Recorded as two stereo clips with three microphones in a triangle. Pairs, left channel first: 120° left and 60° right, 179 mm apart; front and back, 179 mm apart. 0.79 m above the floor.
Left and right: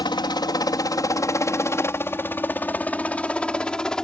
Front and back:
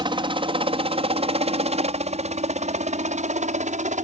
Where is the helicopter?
155° left; by 4.0 s 155° right.